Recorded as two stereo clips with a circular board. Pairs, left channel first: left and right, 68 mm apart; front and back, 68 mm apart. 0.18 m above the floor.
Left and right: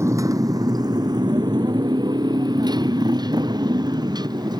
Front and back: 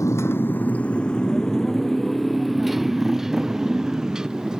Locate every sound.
0.0 s a motorcycle: 45° right; by 4.6 s 100° right